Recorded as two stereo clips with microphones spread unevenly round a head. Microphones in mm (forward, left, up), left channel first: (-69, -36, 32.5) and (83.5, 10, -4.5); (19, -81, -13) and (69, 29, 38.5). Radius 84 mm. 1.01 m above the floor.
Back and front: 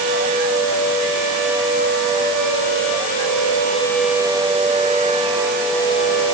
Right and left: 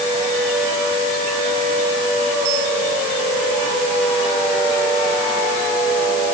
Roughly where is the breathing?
No breathing in this recording.